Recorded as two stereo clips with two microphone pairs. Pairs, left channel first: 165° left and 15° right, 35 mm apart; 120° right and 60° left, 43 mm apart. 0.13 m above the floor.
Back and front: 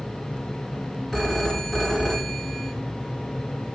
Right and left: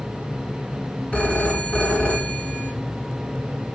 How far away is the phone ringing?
About 1.3 m.